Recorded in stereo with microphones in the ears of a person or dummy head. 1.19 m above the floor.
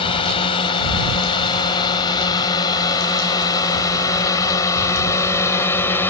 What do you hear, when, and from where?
0.0 s a drone: 35° left (ahead or behind); by 6.1 s 20° left (ahead or behind)